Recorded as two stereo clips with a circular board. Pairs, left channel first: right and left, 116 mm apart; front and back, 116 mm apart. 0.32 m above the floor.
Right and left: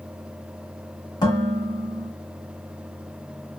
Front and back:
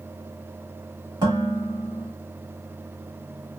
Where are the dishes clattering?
135° right, 1.4 m.